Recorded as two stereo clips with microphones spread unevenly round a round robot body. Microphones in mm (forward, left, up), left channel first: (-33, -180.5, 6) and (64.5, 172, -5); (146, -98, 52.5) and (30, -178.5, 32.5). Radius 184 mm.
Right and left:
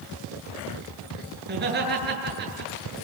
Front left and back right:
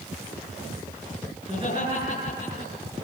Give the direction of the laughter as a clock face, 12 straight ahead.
7 o'clock.